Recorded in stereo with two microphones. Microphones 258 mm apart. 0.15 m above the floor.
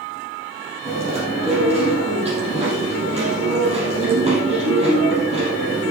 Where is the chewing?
25° right (ahead or behind), 4.5 m.